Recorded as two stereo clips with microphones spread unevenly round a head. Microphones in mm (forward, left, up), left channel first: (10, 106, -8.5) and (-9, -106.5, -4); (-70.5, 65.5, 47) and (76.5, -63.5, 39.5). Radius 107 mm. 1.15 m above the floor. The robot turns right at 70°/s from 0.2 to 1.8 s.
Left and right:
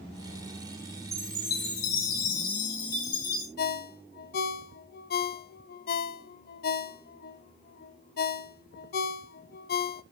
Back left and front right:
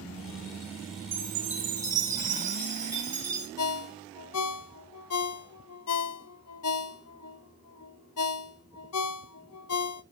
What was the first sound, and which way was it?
A chime, 15° right.